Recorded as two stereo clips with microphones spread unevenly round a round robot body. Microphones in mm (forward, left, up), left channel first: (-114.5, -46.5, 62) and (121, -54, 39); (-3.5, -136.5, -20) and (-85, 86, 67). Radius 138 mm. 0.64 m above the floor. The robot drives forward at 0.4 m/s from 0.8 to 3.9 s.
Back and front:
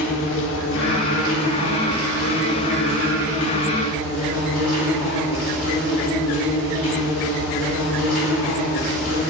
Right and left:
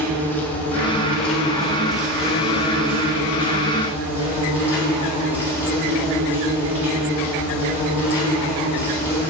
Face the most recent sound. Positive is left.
turn(degrees=-165)